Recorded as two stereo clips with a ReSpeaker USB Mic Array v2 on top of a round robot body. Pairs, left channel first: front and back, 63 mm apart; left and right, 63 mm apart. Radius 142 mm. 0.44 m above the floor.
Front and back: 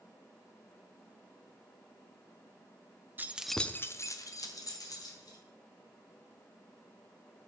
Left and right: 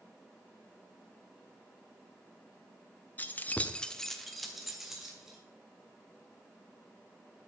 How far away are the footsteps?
No footsteps in this recording.